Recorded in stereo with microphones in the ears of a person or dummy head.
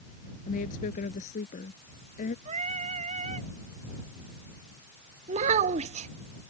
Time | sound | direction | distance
0.5 | a woman speaking | 50° left (ahead or behind) | ?
2.5 | singing | 40° right (ahead or behind) | ?
5.3 | a child speaking | 40° right (ahead or behind) | ?